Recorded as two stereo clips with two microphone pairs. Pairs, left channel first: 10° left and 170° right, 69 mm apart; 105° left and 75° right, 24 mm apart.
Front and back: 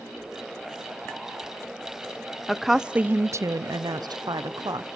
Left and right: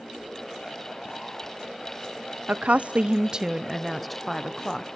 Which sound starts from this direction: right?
A woman speaking, at 2.5 s.